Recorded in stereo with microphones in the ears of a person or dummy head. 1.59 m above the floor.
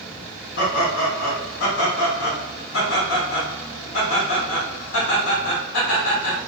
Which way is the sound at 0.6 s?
70° left (ahead or behind).